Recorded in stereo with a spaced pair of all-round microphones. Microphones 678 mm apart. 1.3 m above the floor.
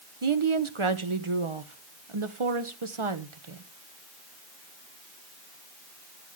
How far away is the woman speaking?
About 1.2 m.